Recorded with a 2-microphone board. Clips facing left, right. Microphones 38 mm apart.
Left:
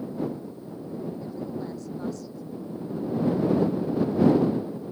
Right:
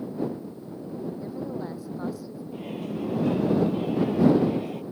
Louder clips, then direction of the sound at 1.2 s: Right 1 dB; 15° right (ahead or behind).